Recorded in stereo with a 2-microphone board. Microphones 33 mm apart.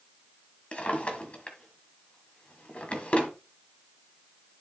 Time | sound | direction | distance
0.7 | a drawer | 40° left (ahead or behind) | 1.5 m